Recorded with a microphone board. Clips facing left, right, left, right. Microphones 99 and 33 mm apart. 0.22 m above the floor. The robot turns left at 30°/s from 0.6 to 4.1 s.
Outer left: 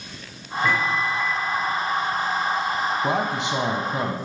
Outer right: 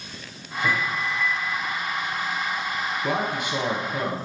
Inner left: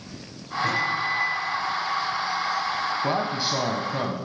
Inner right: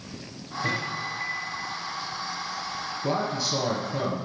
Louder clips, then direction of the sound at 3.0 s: Outer left 2 dB, inner left 2 dB; 30° left (ahead or behind).